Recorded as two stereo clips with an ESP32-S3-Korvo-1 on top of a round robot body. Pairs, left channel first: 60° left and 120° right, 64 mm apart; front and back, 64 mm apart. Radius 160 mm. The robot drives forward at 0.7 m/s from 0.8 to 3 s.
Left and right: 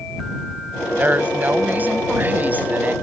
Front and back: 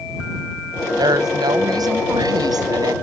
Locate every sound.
1.0 s a woman speaking: straight behind